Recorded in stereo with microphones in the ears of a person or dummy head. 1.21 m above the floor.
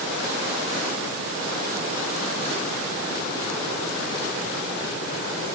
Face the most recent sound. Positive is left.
No sound to turn to.